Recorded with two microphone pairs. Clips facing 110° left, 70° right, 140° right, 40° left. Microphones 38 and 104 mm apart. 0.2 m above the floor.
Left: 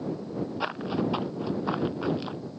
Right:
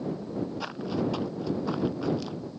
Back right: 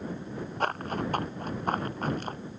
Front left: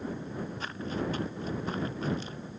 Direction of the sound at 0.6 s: Straight behind.